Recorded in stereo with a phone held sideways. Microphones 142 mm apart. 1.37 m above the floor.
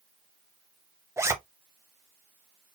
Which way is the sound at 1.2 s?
20° right (ahead or behind).